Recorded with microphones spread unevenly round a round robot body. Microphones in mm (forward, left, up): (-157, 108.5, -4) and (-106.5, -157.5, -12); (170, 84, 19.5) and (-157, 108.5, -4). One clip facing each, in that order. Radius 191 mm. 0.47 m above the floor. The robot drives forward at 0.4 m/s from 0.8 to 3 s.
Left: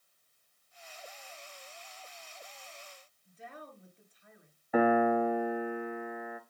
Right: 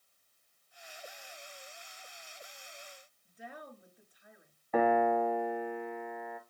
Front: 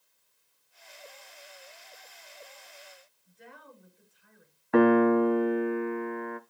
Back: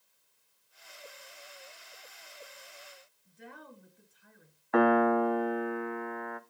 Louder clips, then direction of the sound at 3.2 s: Right 1 dB, back 2 dB; 155° right.